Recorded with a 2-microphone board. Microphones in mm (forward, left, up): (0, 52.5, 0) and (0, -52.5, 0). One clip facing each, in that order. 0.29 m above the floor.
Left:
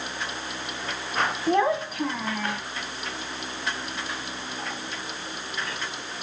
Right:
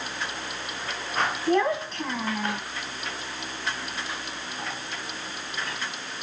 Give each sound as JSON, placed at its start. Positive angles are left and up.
{"t": 1.5, "sound": "a child speaking", "side_deg": 25, "distance_m": 1.4}